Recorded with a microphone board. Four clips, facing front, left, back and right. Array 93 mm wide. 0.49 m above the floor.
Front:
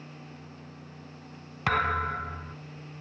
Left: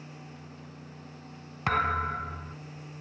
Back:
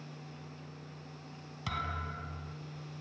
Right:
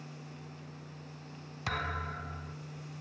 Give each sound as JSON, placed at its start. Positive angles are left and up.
{"t": 1.7, "sound": "a thud", "azimuth_deg": 35, "distance_m": 1.0}